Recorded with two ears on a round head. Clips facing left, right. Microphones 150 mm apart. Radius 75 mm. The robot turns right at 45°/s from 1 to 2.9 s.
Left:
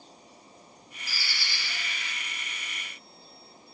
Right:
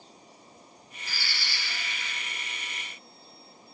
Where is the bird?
10° left, 1.1 m; by 2.1 s 60° left, 1.1 m.